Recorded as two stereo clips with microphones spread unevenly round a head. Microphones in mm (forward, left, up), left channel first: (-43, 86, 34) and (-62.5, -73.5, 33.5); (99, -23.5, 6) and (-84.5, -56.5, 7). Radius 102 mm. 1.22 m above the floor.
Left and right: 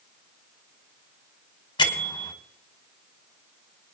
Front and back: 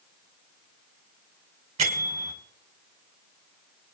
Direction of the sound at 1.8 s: 140° left.